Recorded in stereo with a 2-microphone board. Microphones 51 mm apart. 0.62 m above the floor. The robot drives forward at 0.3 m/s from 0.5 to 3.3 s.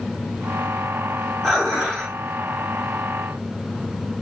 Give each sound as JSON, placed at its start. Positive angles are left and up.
{"t": 1.4, "sound": "dishes clattering", "side_deg": 5, "distance_m": 1.1}